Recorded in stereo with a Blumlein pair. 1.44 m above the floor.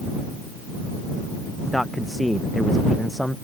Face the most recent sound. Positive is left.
turn(degrees=0)